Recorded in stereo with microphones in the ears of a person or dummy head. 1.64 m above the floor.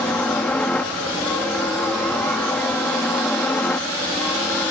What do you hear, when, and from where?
0.0 s a helicopter: 10° left (ahead or behind)